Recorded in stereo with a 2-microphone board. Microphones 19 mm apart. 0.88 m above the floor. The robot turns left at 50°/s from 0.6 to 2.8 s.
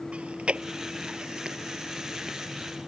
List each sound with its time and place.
0.1 s chewing: 80° right; by 2.4 s centre (ahead or behind)